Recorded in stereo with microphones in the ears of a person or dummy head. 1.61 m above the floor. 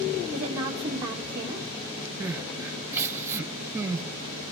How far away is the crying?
About 0.9 m.